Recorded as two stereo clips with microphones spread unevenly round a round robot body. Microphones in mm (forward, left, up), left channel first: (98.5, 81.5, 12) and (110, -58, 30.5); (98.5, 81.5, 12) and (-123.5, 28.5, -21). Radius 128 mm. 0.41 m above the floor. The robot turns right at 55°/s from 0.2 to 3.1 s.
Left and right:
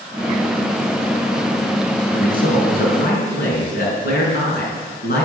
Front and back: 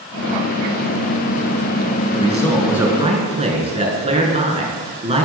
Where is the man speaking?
75° left, 4.5 m; by 5.2 s 130° left, 4.5 m.